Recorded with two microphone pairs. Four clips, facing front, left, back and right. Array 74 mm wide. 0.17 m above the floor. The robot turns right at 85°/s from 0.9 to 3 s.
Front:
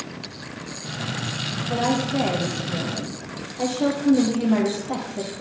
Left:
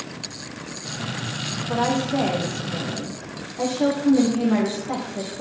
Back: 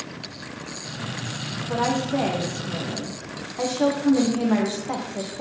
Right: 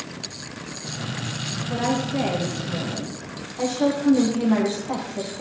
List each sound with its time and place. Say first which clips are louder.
1.7 s a woman speaking: left 2 dB, even; 85° left, 7.5 m; by 5.4 s 165° right, 7.5 m